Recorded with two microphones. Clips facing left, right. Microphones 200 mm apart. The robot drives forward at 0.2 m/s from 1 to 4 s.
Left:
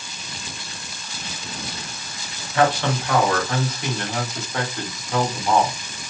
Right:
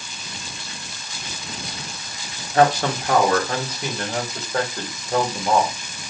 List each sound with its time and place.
2.5 s a man speaking: 40° right (ahead or behind), 0.9 m; by 5.8 s 35° right (ahead or behind), 1.1 m